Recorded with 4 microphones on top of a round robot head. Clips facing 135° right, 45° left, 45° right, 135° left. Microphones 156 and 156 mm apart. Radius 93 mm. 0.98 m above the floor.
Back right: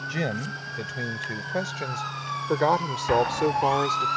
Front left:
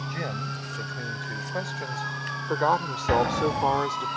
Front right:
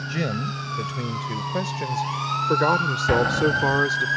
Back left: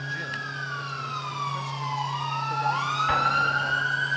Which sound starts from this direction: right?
A man speaking, at 0.1 s.